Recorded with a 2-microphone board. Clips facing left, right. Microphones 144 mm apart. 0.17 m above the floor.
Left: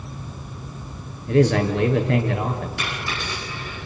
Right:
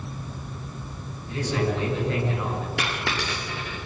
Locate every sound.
1.3 s a man speaking: 65° left (ahead or behind), 3.5 m
2.8 s a dropped coin: 90° right, 6.5 m